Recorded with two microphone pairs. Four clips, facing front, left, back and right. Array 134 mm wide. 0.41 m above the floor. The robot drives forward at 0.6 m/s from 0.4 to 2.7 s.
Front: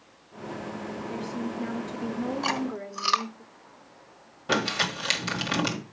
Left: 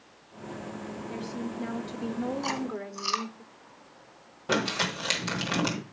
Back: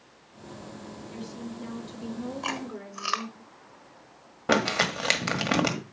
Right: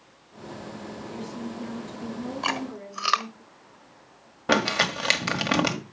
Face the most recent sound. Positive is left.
turn(degrees=-135)